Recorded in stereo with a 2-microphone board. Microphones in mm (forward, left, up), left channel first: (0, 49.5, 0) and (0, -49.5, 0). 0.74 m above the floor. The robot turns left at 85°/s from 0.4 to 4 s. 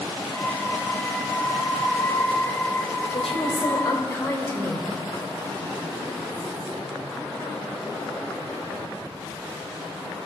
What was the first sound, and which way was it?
A woman speaking, 100° left.